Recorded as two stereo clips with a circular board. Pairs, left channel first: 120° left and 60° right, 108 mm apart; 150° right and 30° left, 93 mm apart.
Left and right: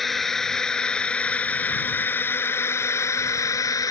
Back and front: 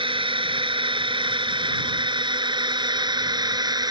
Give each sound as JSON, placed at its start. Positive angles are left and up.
{"t": 0.0, "sound": "a drone", "azimuth_deg": 30}